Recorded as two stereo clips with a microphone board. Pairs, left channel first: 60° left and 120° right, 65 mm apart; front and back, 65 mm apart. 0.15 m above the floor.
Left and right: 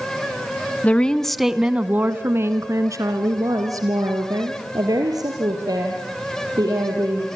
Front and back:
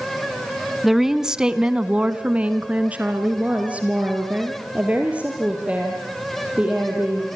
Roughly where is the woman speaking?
Left.